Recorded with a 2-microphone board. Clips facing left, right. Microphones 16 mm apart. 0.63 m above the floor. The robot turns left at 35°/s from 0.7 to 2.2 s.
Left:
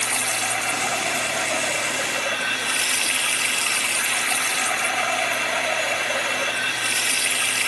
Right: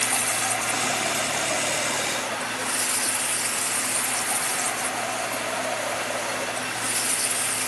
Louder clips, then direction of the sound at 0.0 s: Left 2 dB; 150° left.